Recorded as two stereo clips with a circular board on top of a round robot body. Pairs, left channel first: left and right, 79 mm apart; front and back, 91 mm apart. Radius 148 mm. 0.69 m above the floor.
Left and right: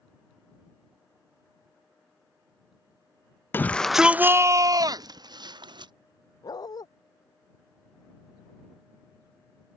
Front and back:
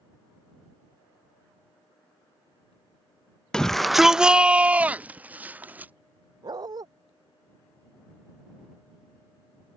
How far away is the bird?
I don't hear a bird.